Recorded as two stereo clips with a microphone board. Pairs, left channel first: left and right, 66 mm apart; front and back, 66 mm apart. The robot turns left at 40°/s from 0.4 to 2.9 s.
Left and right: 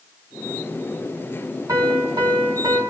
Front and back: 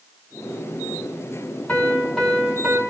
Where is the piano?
65° right, 2.5 m; by 2.8 s 105° right, 2.5 m.